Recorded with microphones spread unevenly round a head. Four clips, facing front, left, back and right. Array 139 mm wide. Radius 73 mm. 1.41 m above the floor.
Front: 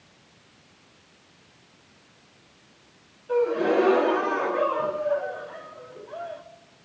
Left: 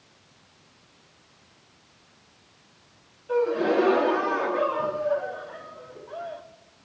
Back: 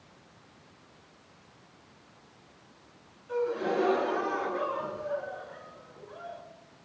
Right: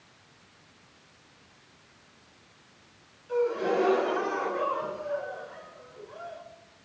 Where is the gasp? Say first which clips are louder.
Left 4 dB, front 7 dB; 40° left, 1.9 m.